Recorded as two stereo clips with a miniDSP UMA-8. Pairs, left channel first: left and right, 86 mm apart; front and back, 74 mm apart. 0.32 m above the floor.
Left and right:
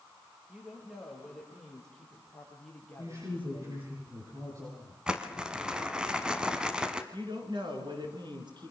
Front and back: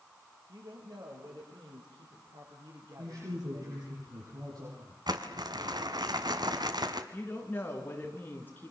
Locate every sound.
0.5 s a woman speaking: 170° right, 8 m; by 3.9 s 155° left, 7 m
3.0 s a woman speaking: 145° right, 9.5 m
5.1 s crumpling: 170° right, 1.7 m
7.1 s a woman speaking: 60° right, 4.5 m